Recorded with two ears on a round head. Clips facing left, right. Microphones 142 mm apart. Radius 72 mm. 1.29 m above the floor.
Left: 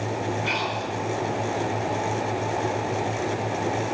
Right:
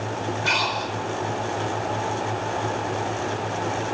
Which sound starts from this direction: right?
Breathing, at 0.5 s.